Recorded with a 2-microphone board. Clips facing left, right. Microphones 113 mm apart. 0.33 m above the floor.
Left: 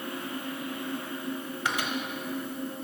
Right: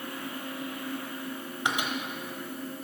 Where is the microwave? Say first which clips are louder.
Right 1 dB; 20° right (ahead or behind), 1.1 m.